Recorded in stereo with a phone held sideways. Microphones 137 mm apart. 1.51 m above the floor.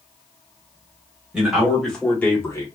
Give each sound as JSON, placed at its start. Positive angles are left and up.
{"t": 1.3, "sound": "a man speaking", "side_deg": -10, "distance_m": 1.5}